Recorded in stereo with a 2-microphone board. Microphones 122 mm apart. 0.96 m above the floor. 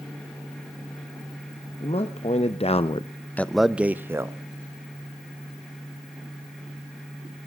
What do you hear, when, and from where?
1.8 s a man speaking: 55° left (ahead or behind), 1.1 m; by 4.4 s 25° right (ahead or behind), 1.0 m